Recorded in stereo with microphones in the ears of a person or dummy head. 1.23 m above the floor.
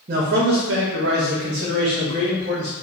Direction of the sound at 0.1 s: 35° right (ahead or behind).